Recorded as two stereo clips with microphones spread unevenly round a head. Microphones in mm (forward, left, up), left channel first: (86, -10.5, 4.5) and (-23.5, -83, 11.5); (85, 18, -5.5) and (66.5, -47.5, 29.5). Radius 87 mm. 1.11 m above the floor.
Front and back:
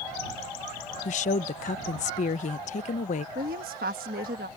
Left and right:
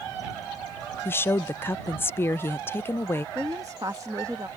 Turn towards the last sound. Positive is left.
turn(degrees=180)